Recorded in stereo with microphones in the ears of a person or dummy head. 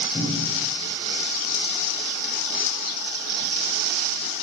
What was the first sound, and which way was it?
A cupboard door, 25° left (ahead or behind).